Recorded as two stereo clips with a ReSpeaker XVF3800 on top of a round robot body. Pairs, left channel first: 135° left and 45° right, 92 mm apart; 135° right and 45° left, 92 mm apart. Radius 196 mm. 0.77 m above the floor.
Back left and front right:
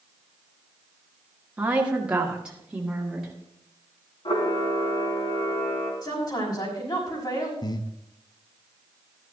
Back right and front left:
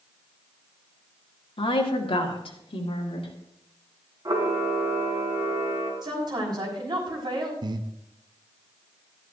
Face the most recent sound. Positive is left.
turn(degrees=90)